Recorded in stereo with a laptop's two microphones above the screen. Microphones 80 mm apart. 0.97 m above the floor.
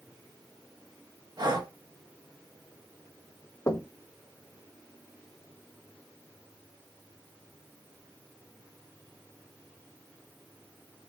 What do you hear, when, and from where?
1.4 s breathing: 55° right (ahead or behind), 1.4 m
3.7 s knocking: 45° left (ahead or behind), 0.8 m